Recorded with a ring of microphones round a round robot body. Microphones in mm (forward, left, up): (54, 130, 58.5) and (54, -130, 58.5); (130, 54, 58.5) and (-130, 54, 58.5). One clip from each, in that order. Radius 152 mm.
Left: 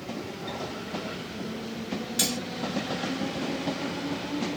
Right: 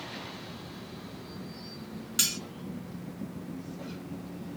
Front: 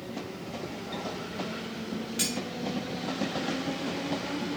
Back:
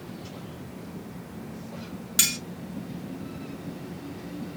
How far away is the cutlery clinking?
About 2.5 m.